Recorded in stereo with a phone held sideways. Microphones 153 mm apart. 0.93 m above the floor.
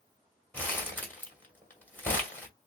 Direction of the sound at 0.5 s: 10° left (ahead or behind).